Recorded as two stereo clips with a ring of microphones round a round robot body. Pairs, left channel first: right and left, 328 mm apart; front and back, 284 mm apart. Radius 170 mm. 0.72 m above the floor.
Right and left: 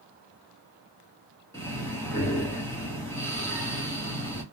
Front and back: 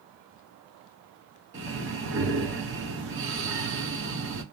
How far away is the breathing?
About 1.4 m.